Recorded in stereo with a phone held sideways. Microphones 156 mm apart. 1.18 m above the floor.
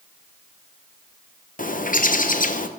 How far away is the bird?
About 0.6 m.